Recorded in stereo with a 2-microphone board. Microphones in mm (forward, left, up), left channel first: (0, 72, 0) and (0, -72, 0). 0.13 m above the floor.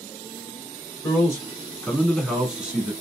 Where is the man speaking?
25° left (ahead or behind), 1.3 m; by 2.9 s 10° right (ahead or behind), 1.3 m.